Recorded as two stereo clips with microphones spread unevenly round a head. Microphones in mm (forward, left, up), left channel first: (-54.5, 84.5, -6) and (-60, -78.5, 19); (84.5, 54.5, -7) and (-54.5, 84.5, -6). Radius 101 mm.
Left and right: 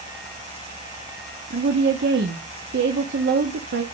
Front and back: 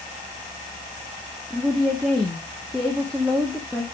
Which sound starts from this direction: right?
A woman speaking, at 1.5 s.